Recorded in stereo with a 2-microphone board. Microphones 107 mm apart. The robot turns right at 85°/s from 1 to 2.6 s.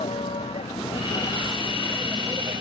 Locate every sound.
0.0 s a vehicle: 80° left; by 2.6 s 55° right (ahead or behind)